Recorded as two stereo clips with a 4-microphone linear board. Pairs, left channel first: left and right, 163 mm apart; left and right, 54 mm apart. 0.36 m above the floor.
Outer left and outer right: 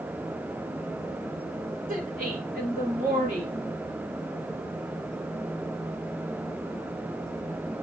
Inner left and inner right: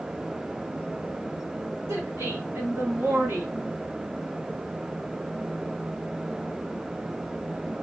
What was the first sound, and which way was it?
A woman speaking, 55° right (ahead or behind).